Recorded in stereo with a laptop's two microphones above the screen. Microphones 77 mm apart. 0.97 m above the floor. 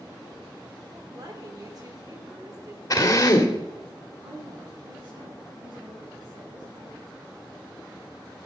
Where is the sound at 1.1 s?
50° right (ahead or behind), 2.5 m.